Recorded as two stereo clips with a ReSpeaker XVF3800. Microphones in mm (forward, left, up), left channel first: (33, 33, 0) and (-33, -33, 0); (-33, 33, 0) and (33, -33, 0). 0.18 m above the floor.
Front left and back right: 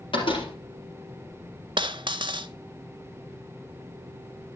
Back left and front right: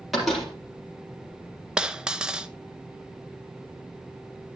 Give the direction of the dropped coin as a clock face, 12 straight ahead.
4 o'clock.